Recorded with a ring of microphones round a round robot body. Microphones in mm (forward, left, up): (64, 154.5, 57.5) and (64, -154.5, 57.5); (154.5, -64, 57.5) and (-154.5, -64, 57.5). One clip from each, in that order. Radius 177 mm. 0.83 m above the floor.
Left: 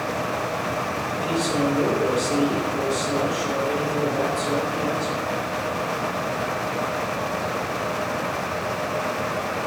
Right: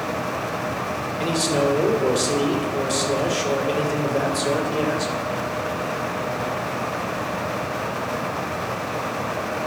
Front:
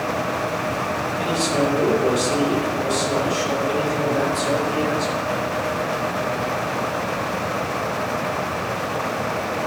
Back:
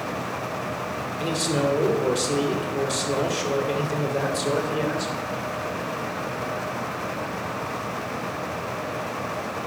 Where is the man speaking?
125° right, 3.5 m.